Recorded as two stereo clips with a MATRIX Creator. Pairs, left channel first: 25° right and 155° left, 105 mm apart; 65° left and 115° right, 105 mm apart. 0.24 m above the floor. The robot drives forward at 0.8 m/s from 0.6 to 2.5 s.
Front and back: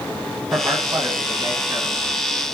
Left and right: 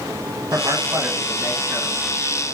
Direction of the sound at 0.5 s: 155° right.